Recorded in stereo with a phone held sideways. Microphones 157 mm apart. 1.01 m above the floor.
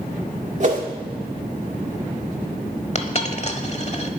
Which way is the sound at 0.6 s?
50° right (ahead or behind).